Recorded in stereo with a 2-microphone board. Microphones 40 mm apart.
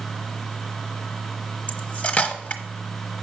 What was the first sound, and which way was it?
Cutlery clinking, 35° left (ahead or behind).